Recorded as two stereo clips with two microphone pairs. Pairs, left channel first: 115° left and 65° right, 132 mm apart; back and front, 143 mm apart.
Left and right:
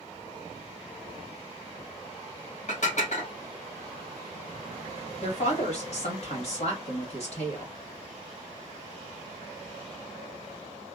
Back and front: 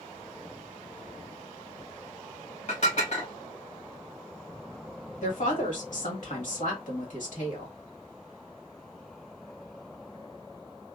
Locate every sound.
2.7 s dishes clattering: 145° left, 1.2 m
5.2 s a woman speaking: 155° left, 1.4 m